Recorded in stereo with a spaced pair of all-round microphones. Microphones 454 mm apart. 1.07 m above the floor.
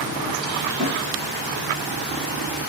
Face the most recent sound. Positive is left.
turn(degrees=-35)  # may be behind; listen again after turning